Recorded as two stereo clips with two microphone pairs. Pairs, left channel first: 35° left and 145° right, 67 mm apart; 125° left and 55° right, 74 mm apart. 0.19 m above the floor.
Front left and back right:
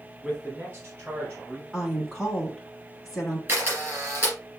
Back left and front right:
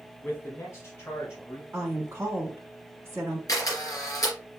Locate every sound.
0.2 s a man speaking: 170° left, 1.1 m
1.7 s a woman speaking: 55° right, 1.3 m
3.5 s a camera shutter: 165° left, 3 m